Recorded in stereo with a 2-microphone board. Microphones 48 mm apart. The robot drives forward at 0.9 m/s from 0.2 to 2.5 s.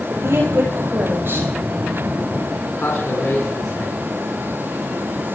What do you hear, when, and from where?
0.1 s a woman speaking: 55° right (ahead or behind), 7 m; by 1.5 s 50° right (ahead or behind), 8 m
2.7 s a man speaking: 70° left (ahead or behind), 3.5 m